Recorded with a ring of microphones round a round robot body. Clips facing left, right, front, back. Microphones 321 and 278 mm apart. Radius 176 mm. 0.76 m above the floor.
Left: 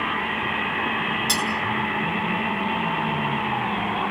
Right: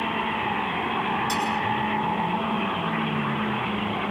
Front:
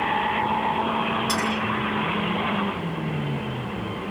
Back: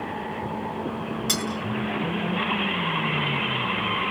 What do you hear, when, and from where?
1.3 s cutlery clinking: 140° left, 7.5 m